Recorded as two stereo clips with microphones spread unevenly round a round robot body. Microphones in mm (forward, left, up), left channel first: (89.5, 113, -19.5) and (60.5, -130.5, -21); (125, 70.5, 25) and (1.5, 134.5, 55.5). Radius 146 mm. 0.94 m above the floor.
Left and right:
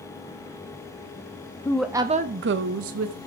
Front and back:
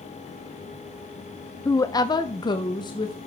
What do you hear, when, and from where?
1.6 s a woman speaking: 10° left, 0.6 m; by 3.2 s 85° right, 1.1 m